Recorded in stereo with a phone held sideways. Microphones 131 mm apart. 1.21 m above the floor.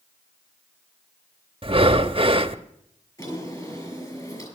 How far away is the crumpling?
I don't hear crumpling.